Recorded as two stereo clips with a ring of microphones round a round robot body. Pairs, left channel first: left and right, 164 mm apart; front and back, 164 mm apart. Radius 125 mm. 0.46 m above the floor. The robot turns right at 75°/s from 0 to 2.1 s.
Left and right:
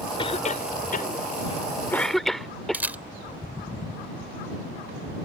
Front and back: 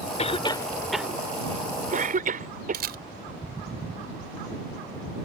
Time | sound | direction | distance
0.2 | a cough | 35° left | ?
2.7 | a camera shutter | 170° right | ?